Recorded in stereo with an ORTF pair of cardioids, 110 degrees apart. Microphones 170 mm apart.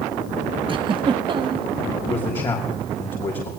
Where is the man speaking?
30° left, 3.5 m.